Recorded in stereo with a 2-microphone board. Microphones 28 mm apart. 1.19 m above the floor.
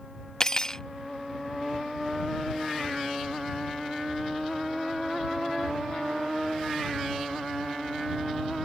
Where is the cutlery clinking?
25° left (ahead or behind).